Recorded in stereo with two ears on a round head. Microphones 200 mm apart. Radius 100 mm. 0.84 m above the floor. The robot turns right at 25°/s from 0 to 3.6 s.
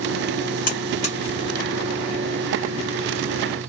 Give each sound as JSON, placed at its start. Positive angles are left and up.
{"t": 0.7, "sound": "a buzzer", "side_deg": 40, "distance_m": 1.9}